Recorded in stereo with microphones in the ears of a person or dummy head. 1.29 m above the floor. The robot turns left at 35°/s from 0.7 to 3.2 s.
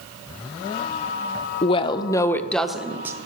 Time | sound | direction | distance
1.6 | a woman speaking | 35° left | 0.5 m